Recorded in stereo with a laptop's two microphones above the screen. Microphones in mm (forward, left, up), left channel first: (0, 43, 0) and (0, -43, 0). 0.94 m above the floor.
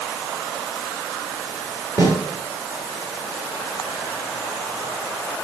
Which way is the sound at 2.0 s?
30° right (ahead or behind).